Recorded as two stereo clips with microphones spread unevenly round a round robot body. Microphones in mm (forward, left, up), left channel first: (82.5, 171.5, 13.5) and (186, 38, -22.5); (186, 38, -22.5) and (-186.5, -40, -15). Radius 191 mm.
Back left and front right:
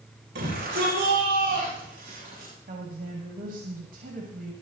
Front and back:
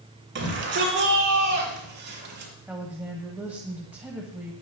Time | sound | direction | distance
0.3 | a shout | 105° right | 8.5 m
2.7 | a woman speaking | 85° right | 1.6 m